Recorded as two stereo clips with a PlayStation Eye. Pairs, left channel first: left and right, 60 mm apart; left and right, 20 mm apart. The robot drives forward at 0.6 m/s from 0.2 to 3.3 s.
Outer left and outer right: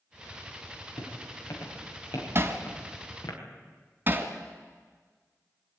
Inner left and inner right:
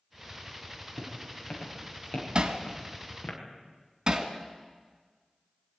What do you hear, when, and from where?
1.0 s footsteps: 50° left (ahead or behind), 7.5 m; by 3.4 s 65° left (ahead or behind), 7 m
2.4 s hammering: 45° right (ahead or behind), 2.0 m; by 4.3 s 35° right (ahead or behind), 2.5 m